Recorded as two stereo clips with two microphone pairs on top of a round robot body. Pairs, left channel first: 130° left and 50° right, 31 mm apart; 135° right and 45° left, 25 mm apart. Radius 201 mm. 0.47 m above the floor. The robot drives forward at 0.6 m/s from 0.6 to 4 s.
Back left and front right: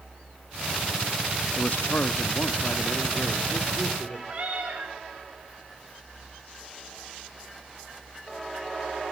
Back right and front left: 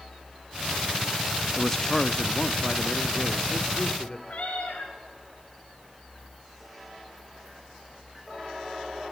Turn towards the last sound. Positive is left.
turn(degrees=-110)